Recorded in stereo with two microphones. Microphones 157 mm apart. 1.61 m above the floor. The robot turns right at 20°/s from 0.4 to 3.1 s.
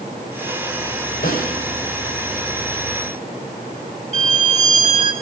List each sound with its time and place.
1.2 s a snare drum: 60° left (ahead or behind), 6.5 m; by 1.6 s 55° left (ahead or behind), 6.5 m
4.1 s a violin: 45° left (ahead or behind), 3 m